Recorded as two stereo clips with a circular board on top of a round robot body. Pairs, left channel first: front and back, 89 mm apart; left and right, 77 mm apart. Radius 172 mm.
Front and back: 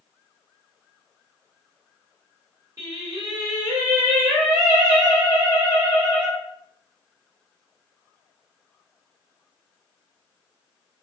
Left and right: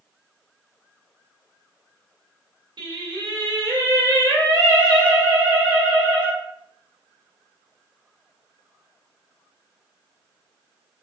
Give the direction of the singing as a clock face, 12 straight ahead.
4 o'clock.